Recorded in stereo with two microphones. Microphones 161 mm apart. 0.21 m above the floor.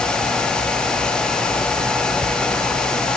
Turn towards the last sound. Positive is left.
No sound to turn to.